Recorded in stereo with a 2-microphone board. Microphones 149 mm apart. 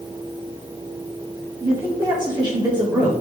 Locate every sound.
1.6 s a man speaking: 30° right (ahead or behind), 4 m